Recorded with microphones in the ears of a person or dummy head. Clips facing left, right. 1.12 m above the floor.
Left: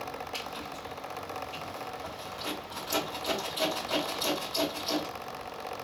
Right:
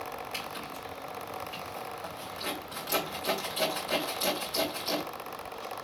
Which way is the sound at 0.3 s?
35° right (ahead or behind).